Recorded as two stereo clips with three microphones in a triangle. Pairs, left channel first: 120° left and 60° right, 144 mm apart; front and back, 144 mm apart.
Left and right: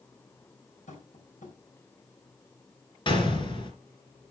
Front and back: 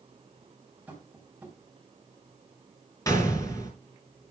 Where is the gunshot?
65° left, 3 m.